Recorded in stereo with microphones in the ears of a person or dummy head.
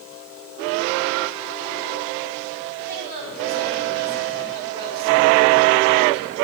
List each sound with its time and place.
2.9 s a woman speaking: 45° left (ahead or behind), 4 m